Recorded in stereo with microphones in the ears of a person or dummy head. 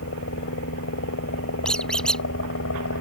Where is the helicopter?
65° left (ahead or behind).